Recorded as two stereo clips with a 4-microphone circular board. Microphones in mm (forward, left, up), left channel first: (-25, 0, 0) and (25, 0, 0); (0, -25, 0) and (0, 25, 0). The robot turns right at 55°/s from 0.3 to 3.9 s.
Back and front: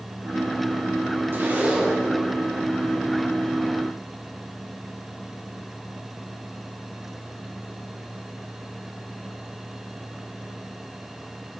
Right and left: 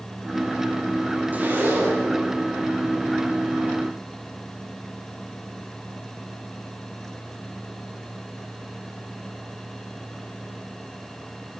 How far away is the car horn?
No car horn in this recording.